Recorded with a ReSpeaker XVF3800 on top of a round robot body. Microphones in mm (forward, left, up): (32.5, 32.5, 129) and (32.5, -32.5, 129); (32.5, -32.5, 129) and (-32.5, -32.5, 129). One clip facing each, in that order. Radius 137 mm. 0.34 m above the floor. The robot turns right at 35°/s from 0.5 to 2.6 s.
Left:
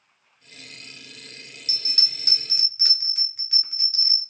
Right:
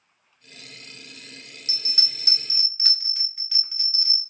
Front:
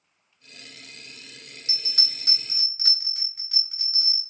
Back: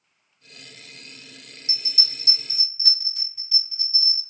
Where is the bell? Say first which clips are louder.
Even, back 2 dB; 30° right, 2 m; by 4.2 s straight ahead, 2 m.